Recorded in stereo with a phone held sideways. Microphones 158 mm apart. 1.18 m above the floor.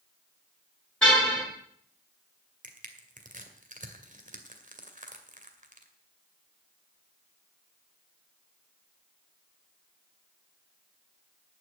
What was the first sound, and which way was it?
A car horn, 5° left (ahead or behind).